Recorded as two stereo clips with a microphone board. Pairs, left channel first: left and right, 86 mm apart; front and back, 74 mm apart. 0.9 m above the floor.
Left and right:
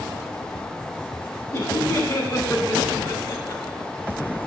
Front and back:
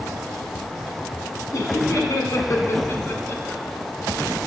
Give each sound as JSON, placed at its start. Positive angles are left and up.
{"t": 1.5, "sound": "laughter", "azimuth_deg": 40, "distance_m": 1.9}